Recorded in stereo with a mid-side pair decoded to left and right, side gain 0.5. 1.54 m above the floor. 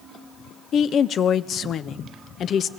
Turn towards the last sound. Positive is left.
turn(degrees=55)